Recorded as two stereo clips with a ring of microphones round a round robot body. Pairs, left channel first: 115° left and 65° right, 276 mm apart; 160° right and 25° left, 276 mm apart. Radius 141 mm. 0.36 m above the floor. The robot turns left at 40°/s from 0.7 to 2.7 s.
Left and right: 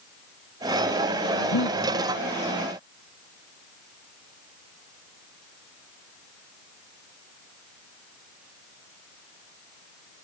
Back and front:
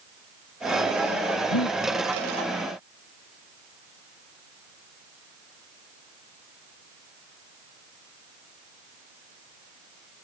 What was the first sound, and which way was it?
Breathing, 160° left.